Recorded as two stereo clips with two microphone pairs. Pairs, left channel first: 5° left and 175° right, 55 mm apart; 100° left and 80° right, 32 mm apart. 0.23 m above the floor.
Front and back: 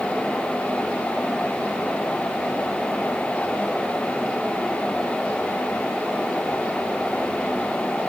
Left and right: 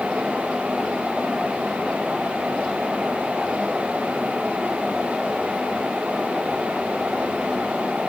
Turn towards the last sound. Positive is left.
No sound to turn to.